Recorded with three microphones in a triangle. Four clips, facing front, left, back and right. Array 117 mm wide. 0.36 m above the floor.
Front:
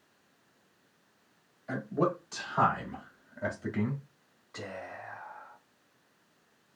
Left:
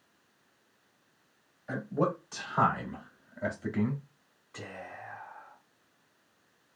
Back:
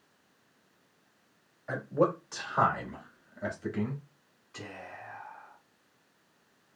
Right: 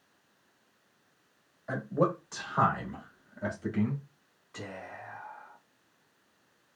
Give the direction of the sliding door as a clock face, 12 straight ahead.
No sliding door in this recording.